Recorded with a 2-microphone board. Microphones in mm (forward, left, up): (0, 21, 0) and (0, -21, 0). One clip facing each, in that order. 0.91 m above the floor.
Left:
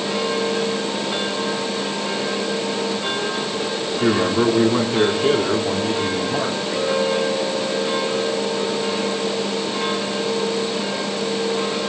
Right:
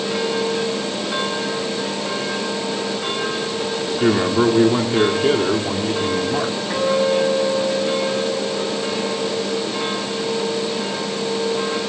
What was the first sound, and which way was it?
A man speaking, 10° right (ahead or behind).